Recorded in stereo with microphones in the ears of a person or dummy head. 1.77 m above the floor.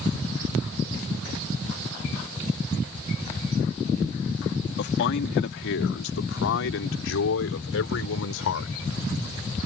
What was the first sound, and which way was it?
A man speaking, 60° left (ahead or behind).